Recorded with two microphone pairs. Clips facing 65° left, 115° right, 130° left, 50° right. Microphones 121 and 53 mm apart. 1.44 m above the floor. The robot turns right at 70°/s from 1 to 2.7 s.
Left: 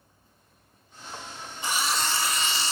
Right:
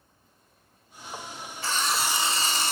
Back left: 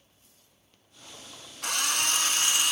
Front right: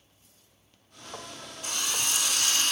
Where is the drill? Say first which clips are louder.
Even, back left 4 dB; 135° left, 1.8 m; by 2.7 s 150° right, 1.8 m.